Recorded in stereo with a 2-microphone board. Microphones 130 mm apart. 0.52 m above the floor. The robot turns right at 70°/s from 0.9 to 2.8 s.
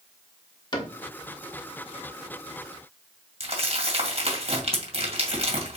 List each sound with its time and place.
0.7 s a cupboard door: 35° left (ahead or behind), 1.0 m
3.4 s crumpling: 50° right (ahead or behind), 2 m